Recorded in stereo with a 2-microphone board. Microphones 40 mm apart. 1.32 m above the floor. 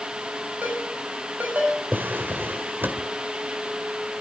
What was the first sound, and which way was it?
A ringtone, 40° right (ahead or behind).